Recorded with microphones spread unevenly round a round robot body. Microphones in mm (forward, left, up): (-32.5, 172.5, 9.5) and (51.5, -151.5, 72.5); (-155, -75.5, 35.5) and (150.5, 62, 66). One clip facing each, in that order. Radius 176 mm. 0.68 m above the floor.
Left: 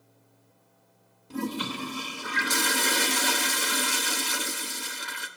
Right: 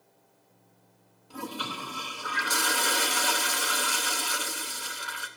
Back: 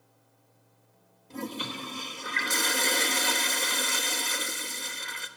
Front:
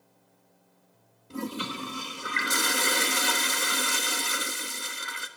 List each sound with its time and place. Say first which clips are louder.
1.3 s a toilet flushing: left 7 dB, front 2 dB; 100° left, 1.3 m